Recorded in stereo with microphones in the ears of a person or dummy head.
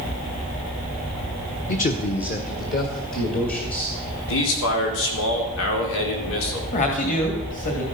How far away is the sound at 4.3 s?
About 4 m.